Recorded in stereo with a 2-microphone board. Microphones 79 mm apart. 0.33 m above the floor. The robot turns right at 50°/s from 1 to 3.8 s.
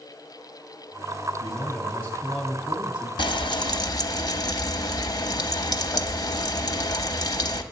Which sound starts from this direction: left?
Frying, at 3.2 s.